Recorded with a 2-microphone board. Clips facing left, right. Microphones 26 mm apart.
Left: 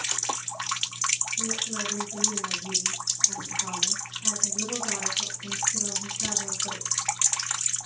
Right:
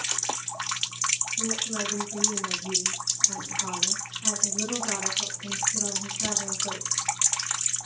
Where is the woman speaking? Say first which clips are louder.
Right 1 dB; 40° right (ahead or behind), 7.5 m.